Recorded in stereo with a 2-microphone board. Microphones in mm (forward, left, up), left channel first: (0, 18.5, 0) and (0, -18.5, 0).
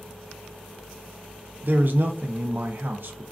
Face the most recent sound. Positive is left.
turn(degrees=-60)  # may be behind; listen again after turning